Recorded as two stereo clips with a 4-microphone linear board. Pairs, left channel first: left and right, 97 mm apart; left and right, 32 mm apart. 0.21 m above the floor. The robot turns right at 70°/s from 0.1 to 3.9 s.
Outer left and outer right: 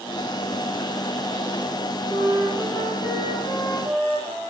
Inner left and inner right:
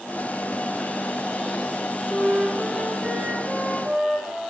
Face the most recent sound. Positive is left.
turn(degrees=-65)